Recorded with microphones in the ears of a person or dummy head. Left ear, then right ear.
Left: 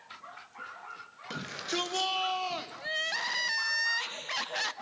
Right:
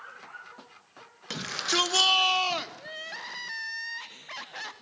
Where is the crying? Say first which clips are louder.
Left 6 dB; 20° left (ahead or behind), 0.5 m.